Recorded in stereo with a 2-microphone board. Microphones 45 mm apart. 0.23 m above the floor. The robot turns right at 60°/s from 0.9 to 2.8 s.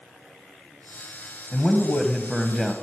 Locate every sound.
1.5 s a man speaking: 20° left (ahead or behind), 1.1 m; by 2.7 s 5° right (ahead or behind), 1.1 m